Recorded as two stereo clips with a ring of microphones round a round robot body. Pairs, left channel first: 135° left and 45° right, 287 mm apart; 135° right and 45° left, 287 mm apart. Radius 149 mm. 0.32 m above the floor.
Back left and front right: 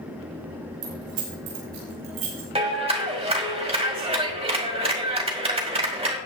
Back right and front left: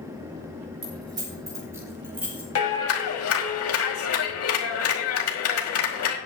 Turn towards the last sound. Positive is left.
turn(degrees=-110)